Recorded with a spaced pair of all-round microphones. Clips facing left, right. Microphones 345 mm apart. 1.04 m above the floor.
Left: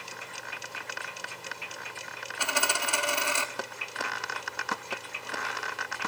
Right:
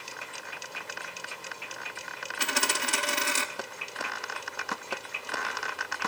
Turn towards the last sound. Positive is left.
turn(degrees=-25)  # may be behind; listen again after turning